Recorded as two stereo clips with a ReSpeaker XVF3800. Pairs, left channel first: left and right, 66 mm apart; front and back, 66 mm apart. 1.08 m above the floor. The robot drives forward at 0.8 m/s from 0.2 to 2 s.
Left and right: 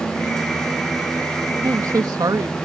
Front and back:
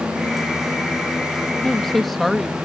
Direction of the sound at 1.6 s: 80° right.